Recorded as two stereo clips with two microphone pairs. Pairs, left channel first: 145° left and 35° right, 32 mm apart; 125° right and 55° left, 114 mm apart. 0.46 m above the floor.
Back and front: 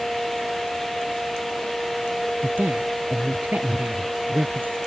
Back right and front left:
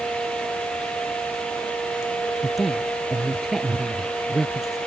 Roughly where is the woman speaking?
Ahead right.